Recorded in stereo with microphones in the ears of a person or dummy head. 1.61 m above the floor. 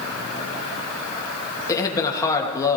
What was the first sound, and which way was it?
A man speaking, 20° left (ahead or behind).